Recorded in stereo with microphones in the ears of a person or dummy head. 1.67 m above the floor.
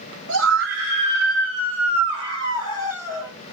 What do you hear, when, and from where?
0.3 s a scream: 70° right (ahead or behind), 1.2 m; by 3.3 s 5° right (ahead or behind), 1.9 m